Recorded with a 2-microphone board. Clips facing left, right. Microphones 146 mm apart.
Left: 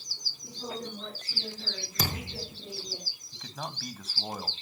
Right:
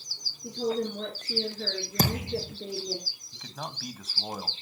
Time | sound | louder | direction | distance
0.4 | a woman speaking | right 10 dB | 70° right (ahead or behind) | 3.5 m
2.0 | a thud | right 7 dB | 50° right (ahead or behind) | 3 m
3.3 | a man speaking | even | 5° right (ahead or behind) | 1.3 m